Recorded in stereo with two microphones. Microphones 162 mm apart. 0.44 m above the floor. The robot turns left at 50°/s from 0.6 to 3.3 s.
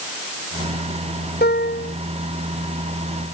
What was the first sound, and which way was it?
A piano, 85° left.